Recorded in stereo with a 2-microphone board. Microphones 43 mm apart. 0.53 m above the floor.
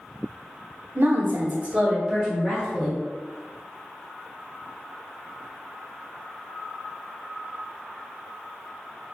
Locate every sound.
0.9 s a woman speaking: 55° right (ahead or behind), 1.1 m; by 3.0 s centre (ahead or behind), 2.0 m